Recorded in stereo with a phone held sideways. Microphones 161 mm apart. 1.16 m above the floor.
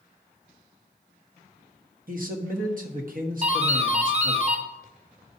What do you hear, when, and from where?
2.1 s a man speaking: 55° right (ahead or behind), 1.1 m
3.4 s a doorbell: 40° right (ahead or behind), 0.8 m